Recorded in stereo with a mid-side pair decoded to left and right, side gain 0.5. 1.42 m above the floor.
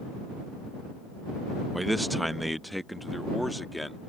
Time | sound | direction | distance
1.7 | a man speaking | 5° right | ?